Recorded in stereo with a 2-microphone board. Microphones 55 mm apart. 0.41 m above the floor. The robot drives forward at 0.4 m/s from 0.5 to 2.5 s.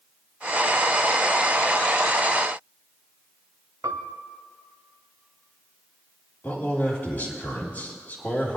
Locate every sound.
3.8 s a piano: 75° right (ahead or behind), 0.5 m
6.4 s a man speaking: 35° left (ahead or behind), 3 m